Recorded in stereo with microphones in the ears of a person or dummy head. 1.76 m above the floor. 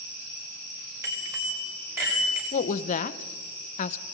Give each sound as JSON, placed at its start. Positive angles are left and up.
{"t": 1.0, "sound": "a bicycle bell", "side_deg": -15, "distance_m": 5.5}
{"t": 2.5, "sound": "a woman speaking", "side_deg": 45, "distance_m": 1.2}